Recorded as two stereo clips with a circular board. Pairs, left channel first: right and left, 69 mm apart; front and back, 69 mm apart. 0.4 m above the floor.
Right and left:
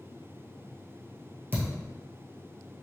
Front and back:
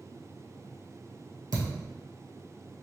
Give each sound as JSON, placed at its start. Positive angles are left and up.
{"t": 1.5, "sound": "a thud", "azimuth_deg": 150, "distance_m": 1.7}